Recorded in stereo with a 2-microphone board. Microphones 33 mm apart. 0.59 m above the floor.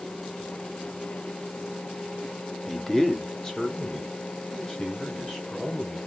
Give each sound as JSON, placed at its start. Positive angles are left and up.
{"t": 2.7, "sound": "a man speaking", "side_deg": 5, "distance_m": 0.9}